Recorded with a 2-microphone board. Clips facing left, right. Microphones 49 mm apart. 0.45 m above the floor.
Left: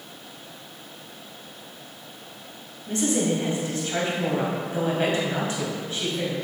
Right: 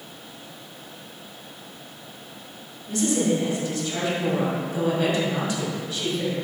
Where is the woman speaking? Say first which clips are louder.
Right 1 dB; 30° left (ahead or behind), 2 m.